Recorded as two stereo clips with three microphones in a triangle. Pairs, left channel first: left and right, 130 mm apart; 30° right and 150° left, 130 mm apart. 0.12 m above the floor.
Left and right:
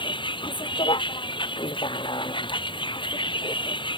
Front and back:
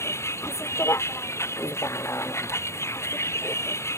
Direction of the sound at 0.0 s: 40° left.